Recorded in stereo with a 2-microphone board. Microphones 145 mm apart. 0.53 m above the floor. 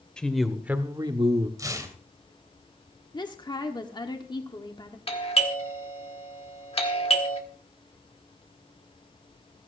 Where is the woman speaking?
30° left (ahead or behind), 1.4 m.